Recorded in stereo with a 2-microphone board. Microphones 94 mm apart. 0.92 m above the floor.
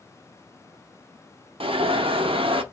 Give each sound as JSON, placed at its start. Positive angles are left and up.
{"t": 1.6, "sound": "an alarm", "side_deg": -75, "distance_m": 0.5}